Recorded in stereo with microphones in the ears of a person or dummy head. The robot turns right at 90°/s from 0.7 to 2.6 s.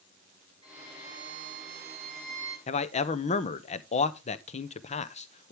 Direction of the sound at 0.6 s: 150° right.